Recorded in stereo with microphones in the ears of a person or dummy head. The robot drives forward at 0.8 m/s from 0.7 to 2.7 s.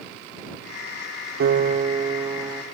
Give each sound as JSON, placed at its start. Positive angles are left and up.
{"t": 1.4, "sound": "a piano", "side_deg": -60, "distance_m": 0.6}